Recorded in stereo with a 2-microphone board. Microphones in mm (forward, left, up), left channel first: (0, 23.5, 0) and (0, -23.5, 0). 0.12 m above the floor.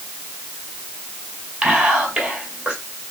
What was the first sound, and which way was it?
Whispering, 15° right (ahead or behind).